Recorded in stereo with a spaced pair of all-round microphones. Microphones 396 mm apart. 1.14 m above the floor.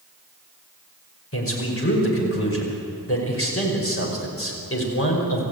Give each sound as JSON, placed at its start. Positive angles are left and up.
{"t": 1.3, "sound": "a man speaking", "side_deg": 35, "distance_m": 5.5}